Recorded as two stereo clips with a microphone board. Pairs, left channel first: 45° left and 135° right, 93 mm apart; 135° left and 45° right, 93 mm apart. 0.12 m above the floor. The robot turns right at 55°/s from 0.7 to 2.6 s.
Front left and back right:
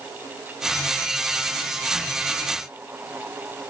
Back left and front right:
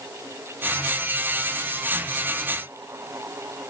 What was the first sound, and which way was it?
Only background noise.